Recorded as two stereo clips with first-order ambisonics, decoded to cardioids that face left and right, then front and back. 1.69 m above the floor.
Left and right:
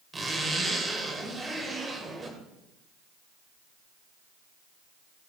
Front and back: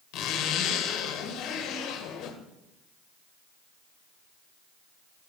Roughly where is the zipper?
Ahead.